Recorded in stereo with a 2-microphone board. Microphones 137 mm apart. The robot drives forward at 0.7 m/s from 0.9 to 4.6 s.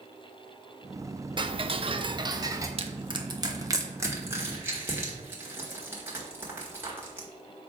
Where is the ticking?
35° right (ahead or behind), 0.5 m; by 2.7 s 20° right (ahead or behind), 0.8 m.